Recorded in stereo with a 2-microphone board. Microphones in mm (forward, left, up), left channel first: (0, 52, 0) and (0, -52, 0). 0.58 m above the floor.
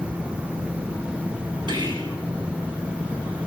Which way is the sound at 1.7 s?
50° right (ahead or behind).